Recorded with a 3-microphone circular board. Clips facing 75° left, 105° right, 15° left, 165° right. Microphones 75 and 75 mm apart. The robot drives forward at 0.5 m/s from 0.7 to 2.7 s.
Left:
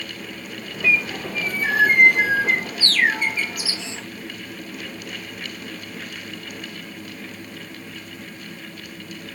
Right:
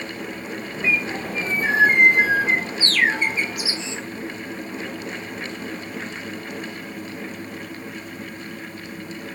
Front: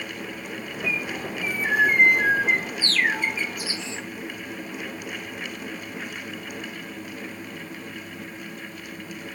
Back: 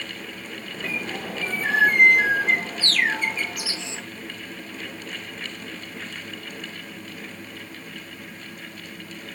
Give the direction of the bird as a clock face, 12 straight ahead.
5 o'clock.